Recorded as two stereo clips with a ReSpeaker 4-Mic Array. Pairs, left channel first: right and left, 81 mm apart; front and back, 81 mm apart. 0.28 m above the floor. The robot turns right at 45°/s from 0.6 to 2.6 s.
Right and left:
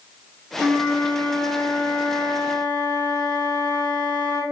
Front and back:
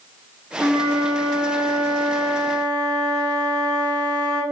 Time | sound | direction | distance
0.6 | a flute | 175° left | 1.4 m